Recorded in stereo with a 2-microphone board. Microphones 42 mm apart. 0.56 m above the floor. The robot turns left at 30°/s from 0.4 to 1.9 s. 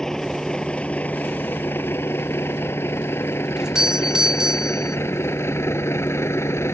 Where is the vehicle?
10° left (ahead or behind); by 6.7 s 85° left.